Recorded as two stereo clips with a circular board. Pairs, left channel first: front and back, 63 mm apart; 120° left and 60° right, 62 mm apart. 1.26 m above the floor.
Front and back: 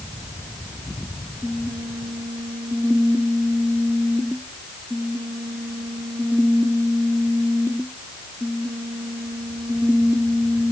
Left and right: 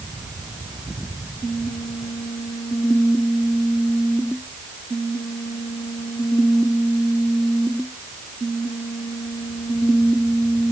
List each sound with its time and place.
Only background noise.